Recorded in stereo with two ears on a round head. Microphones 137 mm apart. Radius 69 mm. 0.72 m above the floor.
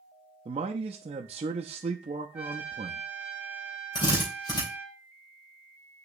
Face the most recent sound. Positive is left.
turn(degrees=30)  # may be behind; listen again after turning